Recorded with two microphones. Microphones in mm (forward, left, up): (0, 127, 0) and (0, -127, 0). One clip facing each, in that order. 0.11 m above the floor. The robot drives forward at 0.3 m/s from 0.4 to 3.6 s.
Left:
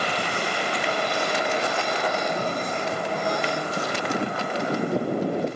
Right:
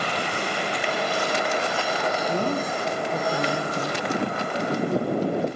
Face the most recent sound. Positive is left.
turn(degrees=-70)  # may be behind; listen again after turning